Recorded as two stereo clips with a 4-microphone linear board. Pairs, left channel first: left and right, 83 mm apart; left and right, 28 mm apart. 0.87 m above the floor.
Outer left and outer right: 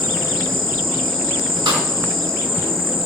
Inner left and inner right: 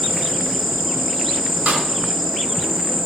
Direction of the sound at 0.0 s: Centre (ahead or behind).